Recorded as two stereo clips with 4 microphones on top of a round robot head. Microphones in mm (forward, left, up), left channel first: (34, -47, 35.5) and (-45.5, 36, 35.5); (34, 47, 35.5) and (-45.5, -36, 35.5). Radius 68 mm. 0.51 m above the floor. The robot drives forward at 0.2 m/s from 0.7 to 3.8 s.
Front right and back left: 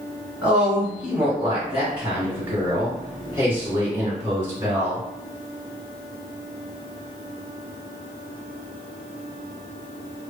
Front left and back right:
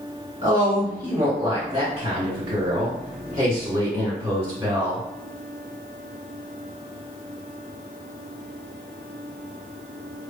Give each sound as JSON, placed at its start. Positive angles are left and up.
{"t": 0.4, "sound": "a woman speaking", "azimuth_deg": -155, "distance_m": 1.5}